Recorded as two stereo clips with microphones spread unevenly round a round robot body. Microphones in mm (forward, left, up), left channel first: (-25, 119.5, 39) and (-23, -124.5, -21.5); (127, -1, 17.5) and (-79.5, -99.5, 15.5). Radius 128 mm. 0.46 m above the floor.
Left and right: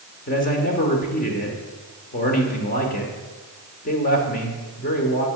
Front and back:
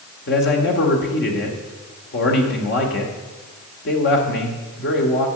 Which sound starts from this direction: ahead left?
A man speaking, at 0.3 s.